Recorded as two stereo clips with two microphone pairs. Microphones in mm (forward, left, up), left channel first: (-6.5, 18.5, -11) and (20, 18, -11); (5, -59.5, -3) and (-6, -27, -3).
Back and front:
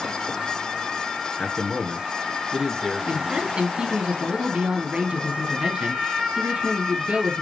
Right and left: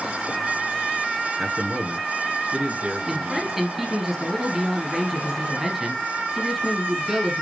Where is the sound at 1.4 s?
145° left, 1.3 m; by 3.5 s 55° left, 1.5 m.